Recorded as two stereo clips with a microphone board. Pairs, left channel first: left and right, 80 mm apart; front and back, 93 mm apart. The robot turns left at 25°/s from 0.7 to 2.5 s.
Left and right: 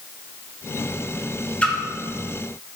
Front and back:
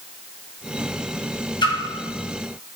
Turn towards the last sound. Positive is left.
turn(degrees=-5)